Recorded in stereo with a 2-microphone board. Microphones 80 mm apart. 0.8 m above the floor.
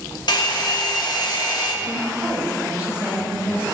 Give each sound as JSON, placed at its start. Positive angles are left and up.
{"t": 0.3, "sound": "a hair dryer", "side_deg": 65, "distance_m": 1.3}
{"t": 1.8, "sound": "a woman speaking", "side_deg": -15, "distance_m": 3.0}